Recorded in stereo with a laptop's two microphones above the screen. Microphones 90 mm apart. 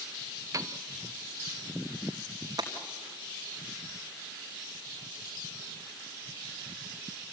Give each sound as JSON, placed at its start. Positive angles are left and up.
{"t": 0.5, "sound": "a piano", "side_deg": -40, "distance_m": 1.0}
{"t": 2.6, "sound": "breaking glass", "side_deg": -45, "distance_m": 4.0}